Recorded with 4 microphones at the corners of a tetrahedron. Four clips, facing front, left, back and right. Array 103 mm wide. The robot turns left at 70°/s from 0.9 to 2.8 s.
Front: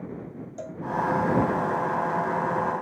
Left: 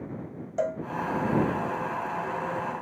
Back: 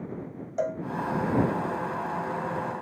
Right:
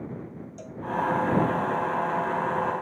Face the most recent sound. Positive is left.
turn(degrees=-5)